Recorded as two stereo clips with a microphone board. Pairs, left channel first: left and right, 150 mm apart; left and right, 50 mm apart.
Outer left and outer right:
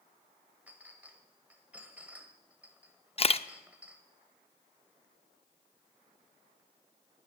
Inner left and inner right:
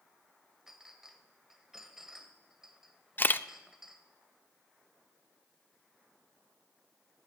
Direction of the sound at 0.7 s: 10° right (ahead or behind).